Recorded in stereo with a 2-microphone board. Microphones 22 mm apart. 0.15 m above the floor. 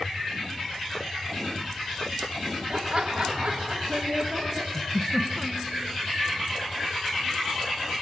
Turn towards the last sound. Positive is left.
turn(degrees=20)  # may be behind; listen again after turning